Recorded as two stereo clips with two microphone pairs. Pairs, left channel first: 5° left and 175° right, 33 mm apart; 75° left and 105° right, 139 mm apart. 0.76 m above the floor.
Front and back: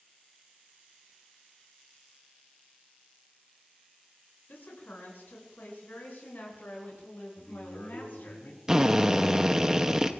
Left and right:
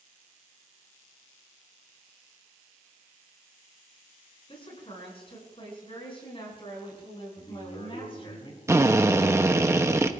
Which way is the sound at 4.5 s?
25° left.